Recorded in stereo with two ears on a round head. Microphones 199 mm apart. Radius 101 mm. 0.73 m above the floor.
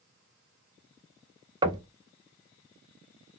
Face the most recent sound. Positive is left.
turn(degrees=-20)  # may be behind; listen again after turning